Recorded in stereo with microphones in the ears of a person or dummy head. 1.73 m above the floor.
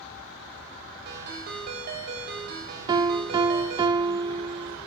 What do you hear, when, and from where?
1.1 s a ringtone: 55° right (ahead or behind), 3 m
2.9 s a piano: 25° right (ahead or behind), 0.5 m